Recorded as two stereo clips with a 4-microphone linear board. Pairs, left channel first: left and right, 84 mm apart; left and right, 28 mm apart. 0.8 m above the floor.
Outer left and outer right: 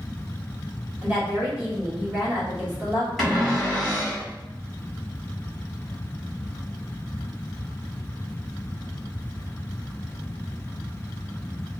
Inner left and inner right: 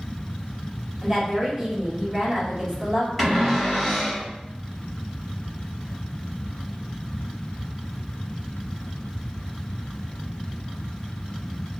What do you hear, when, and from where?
1.0 s a woman speaking: 20° right (ahead or behind), 1.7 m
3.2 s a cupboard door: centre (ahead or behind), 1.9 m